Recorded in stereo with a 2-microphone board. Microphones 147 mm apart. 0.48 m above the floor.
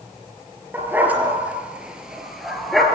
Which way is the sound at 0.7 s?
15° right (ahead or behind).